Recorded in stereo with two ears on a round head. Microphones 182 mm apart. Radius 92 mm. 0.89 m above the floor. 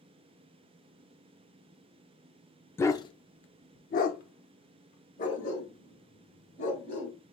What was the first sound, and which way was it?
A dog barking, 10° left (ahead or behind).